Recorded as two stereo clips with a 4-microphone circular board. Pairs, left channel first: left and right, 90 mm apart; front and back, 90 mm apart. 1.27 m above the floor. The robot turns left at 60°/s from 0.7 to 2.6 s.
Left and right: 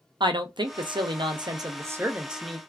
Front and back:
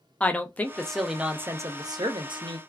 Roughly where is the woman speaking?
Right.